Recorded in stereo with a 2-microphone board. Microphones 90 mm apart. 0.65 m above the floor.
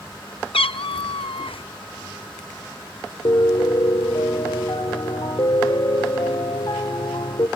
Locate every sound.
0.5 s a cat meowing: 85° left, 0.5 m
3.2 s a piano: 60° left (ahead or behind), 0.7 m